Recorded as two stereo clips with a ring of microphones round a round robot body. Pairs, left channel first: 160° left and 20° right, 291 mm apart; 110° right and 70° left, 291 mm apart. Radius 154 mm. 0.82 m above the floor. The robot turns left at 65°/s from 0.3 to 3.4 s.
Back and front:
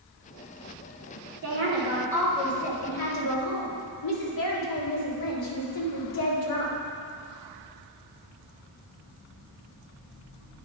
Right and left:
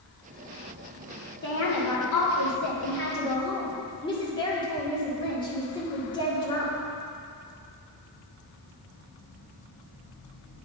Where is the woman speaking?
60° right, 2 m; by 6.8 s 175° left, 2 m.